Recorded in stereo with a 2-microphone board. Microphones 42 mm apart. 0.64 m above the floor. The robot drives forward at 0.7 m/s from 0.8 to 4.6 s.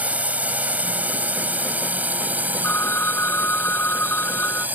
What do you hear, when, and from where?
0.0 s a drone: 35° right (ahead or behind); by 4.8 s 45° right (ahead or behind)
2.6 s a phone ringing: 80° left; by 4.7 s 65° left (ahead or behind)